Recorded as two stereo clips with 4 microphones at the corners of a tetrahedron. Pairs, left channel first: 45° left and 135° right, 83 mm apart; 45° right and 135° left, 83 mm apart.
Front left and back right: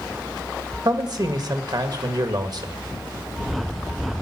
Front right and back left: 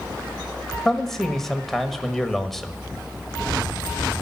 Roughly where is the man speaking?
Behind right.